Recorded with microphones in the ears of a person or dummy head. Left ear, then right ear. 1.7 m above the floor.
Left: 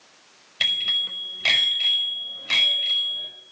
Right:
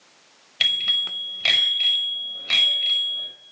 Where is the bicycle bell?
15° right (ahead or behind), 5.5 m.